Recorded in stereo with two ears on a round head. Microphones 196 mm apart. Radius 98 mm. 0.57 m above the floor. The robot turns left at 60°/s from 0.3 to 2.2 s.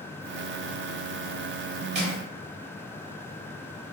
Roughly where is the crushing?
Right.